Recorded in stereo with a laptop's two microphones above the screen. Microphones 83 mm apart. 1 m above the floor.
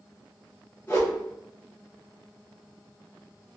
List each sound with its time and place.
0.9 s a whoosh: 30° left (ahead or behind), 1.2 m